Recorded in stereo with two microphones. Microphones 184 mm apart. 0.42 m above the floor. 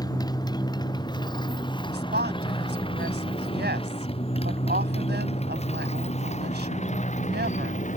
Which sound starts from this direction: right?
A woman speaking, at 1.9 s.